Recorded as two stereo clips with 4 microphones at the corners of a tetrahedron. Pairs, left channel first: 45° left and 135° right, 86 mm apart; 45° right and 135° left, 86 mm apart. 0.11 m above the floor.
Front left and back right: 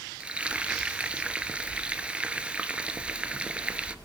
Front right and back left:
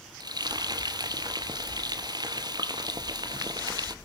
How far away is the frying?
About 0.7 m.